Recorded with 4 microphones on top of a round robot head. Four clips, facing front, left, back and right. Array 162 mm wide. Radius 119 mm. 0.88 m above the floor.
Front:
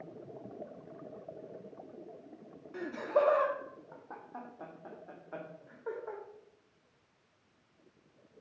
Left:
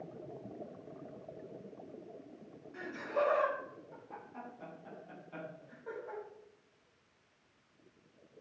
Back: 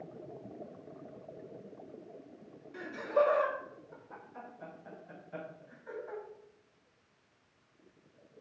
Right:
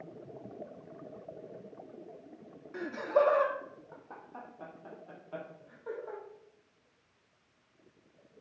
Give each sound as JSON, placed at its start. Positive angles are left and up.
{"t": 2.7, "sound": "laughter", "azimuth_deg": -50, "distance_m": 1.9}